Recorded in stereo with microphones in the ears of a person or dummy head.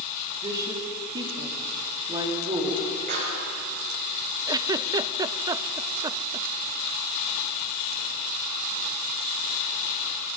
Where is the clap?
50° right (ahead or behind), 6 m.